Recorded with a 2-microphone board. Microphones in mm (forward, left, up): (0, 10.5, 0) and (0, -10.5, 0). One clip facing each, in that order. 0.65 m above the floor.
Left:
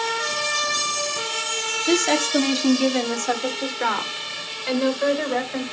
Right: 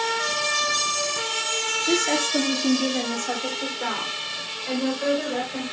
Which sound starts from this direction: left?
A woman speaking, at 1.9 s.